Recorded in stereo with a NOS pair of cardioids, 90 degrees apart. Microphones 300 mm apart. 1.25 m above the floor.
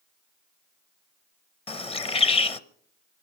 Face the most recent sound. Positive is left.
turn(degrees=20)